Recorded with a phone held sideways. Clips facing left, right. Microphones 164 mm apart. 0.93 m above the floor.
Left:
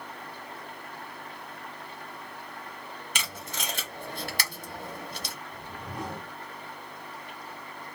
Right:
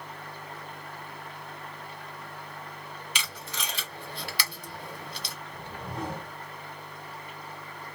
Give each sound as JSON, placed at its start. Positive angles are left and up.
{"t": 3.1, "sound": "tape being pulled", "side_deg": 50, "distance_m": 0.9}
{"t": 5.5, "sound": "a whoosh", "side_deg": -30, "distance_m": 1.6}